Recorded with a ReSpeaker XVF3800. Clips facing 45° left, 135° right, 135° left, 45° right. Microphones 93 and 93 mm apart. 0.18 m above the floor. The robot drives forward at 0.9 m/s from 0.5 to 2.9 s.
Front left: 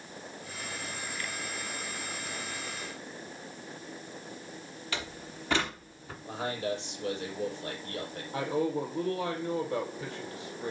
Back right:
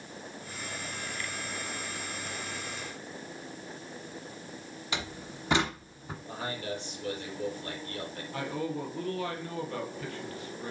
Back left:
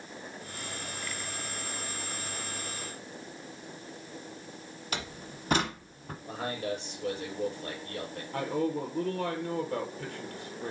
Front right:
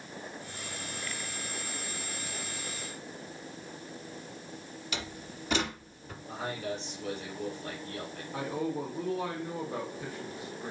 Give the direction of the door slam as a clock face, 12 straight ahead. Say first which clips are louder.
Back right 2 dB, back left 2 dB; 7 o'clock.